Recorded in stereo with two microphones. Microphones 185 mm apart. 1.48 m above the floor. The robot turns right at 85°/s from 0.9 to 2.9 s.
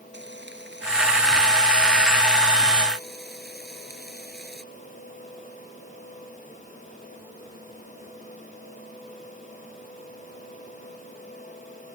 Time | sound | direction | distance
0.1 | frying | 115° right | ?